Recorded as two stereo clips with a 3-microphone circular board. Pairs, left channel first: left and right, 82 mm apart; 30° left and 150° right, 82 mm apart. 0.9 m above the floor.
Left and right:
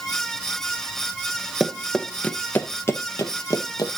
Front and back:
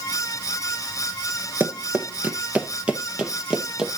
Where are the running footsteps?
175° right, 0.9 m; by 3.9 s 130° left, 1.8 m.